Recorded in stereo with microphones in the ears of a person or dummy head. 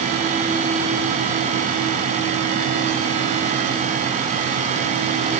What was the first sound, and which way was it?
Only background noise.